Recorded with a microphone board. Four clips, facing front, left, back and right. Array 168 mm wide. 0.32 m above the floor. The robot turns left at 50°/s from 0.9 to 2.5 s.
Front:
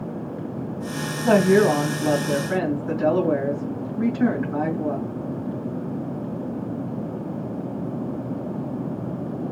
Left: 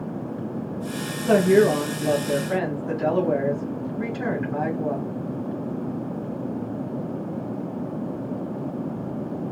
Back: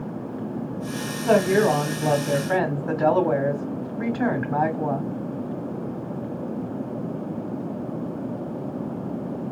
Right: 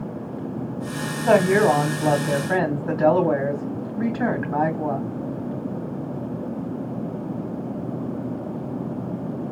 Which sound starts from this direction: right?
A woman speaking, at 1.2 s.